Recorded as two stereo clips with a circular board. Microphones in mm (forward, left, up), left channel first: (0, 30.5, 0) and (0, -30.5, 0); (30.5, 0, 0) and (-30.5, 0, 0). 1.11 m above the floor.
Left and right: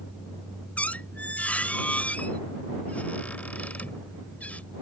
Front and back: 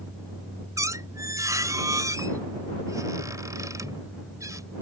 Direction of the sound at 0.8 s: 155° left.